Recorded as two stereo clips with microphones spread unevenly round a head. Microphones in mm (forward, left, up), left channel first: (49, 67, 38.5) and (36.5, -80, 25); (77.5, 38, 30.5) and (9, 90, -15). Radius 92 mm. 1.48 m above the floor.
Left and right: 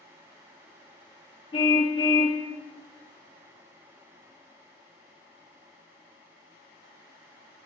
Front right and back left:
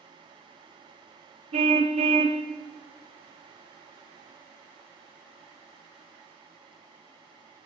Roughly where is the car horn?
Behind left.